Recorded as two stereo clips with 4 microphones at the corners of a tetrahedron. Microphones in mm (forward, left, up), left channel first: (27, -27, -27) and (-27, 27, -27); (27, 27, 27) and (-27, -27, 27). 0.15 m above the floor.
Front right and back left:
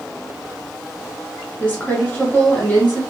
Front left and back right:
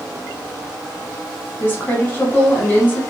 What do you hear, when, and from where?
1.6 s a woman speaking: 5° left, 1.1 m